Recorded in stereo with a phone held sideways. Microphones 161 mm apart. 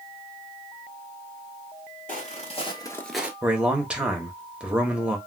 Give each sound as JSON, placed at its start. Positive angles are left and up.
{"t": 2.1, "sound": "footsteps", "side_deg": 55, "distance_m": 1.3}
{"t": 3.4, "sound": "a man speaking", "side_deg": -5, "distance_m": 0.8}